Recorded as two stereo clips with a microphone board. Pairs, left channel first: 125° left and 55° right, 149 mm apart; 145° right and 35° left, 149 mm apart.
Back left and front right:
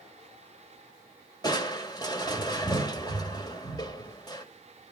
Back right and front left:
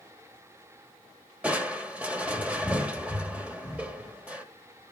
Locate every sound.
1.4 s crushing: 105° left, 1.7 m